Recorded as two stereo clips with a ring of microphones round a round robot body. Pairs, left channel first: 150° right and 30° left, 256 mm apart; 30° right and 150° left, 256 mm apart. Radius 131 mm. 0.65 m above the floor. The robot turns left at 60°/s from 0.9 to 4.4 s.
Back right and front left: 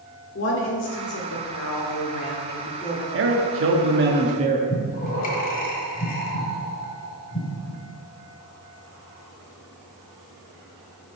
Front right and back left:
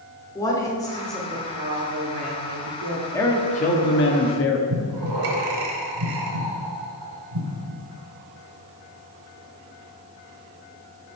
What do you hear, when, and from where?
0.3 s a woman speaking: 105° right, 1.5 m; by 3.0 s 125° left, 1.5 m
3.1 s a man speaking: 50° left, 1.1 m; by 4.6 s 25° right, 1.1 m
4.7 s breathing: 150° left, 1.3 m